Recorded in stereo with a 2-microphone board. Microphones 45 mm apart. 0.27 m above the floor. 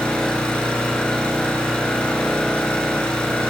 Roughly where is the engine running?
Left.